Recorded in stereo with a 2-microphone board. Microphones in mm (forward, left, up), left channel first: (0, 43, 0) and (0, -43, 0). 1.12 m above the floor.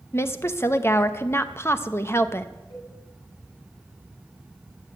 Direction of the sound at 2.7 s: 80° left.